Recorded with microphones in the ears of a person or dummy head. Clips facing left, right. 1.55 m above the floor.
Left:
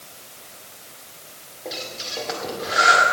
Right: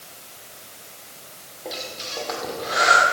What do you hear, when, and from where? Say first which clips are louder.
1.6 s breathing: even; 10° left (ahead or behind), 2 m